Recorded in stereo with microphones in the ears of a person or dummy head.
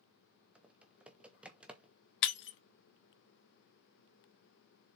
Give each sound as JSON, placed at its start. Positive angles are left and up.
{"t": 0.6, "sound": "typing on a keyboard", "side_deg": -5, "distance_m": 1.1}
{"t": 2.2, "sound": "breaking glass", "side_deg": 60, "distance_m": 0.8}